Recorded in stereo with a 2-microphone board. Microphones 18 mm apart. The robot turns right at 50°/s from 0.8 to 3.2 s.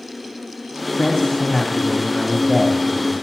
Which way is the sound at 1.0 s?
100° left.